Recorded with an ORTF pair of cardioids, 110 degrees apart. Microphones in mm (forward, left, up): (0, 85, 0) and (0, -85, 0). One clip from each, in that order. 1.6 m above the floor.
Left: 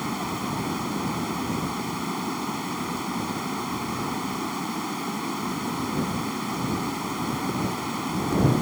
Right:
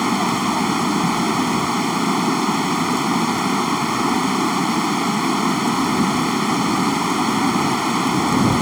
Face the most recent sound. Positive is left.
turn(degrees=-60)